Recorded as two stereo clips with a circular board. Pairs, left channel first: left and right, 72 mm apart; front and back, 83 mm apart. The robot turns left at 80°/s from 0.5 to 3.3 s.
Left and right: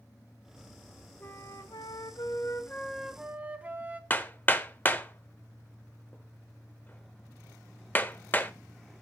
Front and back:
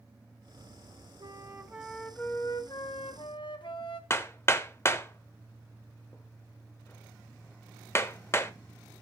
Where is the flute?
150° left, 1.3 m; by 4.0 s 20° right, 1.3 m.